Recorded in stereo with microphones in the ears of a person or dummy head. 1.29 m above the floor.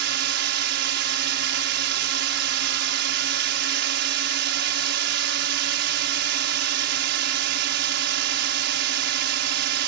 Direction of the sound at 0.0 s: 60° right (ahead or behind).